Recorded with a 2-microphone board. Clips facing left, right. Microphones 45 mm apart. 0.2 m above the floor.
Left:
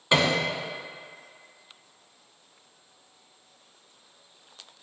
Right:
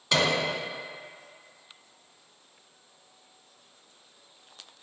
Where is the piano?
20° left (ahead or behind), 1.3 m.